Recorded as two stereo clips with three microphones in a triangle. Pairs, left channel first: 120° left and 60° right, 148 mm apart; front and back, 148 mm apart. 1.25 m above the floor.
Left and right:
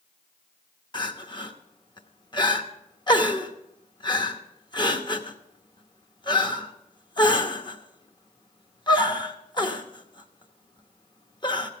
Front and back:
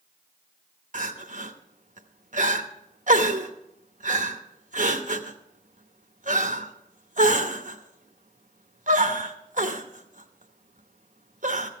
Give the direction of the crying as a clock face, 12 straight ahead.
6 o'clock.